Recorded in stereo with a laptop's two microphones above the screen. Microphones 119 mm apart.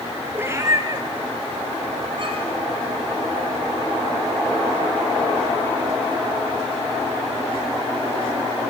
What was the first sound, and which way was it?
A cat meowing, 15° right (ahead or behind).